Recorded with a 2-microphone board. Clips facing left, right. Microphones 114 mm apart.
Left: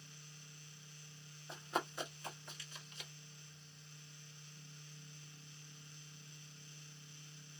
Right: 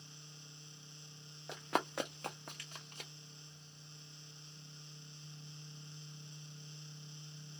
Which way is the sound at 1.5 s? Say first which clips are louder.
Right 4 dB; 85° right.